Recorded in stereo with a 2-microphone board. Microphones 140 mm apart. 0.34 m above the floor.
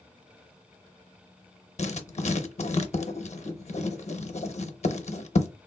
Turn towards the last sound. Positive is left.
turn(degrees=55)  # may be behind; listen again after turning